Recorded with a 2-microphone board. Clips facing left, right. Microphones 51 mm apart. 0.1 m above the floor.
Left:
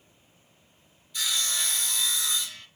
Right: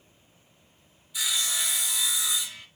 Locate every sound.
1.1 s sawing: 5° right (ahead or behind), 1.0 m